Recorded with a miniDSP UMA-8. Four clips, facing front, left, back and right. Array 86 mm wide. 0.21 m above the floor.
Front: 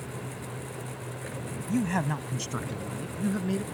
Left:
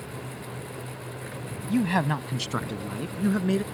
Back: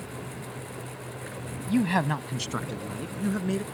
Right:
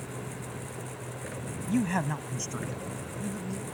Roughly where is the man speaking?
Behind.